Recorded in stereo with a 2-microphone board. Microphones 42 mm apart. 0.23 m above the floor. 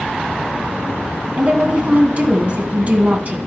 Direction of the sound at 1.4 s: 30° right (ahead or behind).